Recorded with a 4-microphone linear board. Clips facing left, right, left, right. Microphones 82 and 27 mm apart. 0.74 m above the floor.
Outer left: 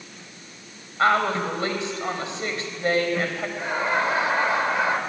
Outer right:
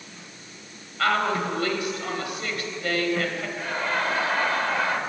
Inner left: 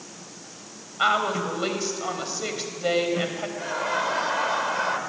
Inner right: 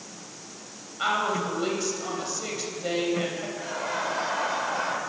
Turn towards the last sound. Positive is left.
turn(degrees=20)  # may be behind; listen again after turning